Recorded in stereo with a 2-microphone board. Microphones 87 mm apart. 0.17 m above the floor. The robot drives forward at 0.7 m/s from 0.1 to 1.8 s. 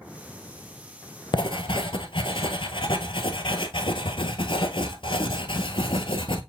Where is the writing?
65° left (ahead or behind), 0.8 m; by 6.4 s 80° left, 0.8 m.